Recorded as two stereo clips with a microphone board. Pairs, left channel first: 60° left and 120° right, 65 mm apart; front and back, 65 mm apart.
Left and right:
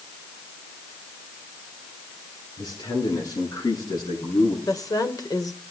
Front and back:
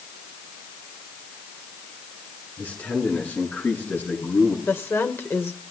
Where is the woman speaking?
50° left, 2.5 m.